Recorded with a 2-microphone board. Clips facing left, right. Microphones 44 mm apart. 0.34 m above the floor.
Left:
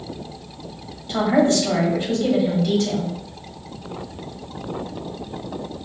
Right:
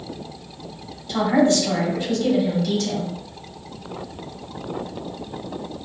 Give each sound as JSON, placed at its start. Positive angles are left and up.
{"t": 1.1, "sound": "a woman speaking", "side_deg": 30, "distance_m": 2.0}